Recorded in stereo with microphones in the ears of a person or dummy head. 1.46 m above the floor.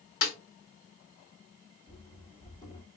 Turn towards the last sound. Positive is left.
turn(degrees=25)  # may be behind; listen again after turning